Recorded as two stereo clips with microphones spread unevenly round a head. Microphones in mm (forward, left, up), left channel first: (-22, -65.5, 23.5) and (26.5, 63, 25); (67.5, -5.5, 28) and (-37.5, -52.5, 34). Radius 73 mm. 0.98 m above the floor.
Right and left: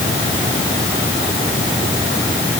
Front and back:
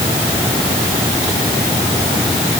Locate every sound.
Only background noise.